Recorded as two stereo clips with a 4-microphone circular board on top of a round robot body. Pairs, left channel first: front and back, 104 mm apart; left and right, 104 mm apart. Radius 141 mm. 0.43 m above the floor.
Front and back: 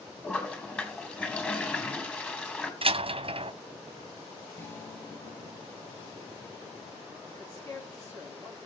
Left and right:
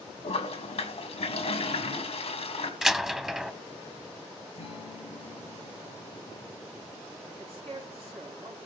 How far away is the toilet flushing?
About 3 m.